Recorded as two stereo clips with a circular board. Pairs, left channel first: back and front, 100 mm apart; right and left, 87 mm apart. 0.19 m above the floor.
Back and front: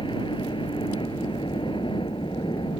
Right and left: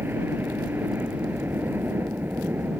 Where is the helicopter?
155° left.